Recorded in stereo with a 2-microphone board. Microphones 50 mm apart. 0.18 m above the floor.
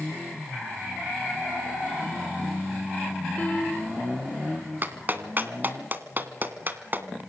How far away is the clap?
About 1.7 m.